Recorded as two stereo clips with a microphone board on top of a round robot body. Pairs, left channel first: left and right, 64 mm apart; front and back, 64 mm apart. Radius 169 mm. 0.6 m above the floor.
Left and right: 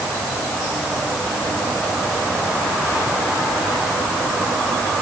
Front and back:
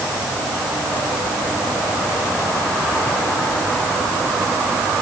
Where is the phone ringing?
No phone ringing in this recording.